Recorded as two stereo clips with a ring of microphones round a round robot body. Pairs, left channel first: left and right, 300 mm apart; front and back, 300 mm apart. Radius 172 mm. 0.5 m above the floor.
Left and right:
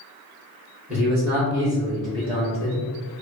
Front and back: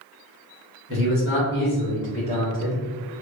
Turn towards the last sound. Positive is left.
turn(degrees=-70)